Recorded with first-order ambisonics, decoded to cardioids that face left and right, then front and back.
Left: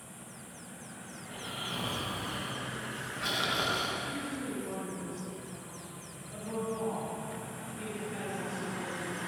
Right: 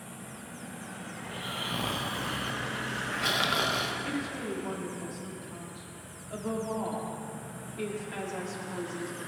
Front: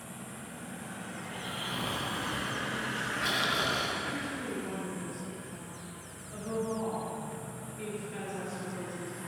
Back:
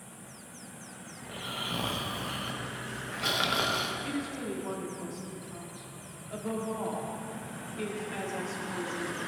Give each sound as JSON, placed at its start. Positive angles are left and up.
{"t": 1.2, "sound": "snoring", "azimuth_deg": -125, "distance_m": 0.8}
{"t": 4.0, "sound": "a woman speaking", "azimuth_deg": -125, "distance_m": 2.0}